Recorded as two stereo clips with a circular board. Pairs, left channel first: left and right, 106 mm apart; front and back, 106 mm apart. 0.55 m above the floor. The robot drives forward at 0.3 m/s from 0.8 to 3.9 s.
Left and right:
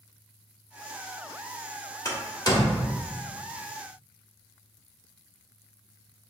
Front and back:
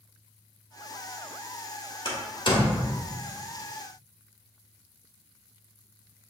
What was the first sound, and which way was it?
A door slam, 35° left.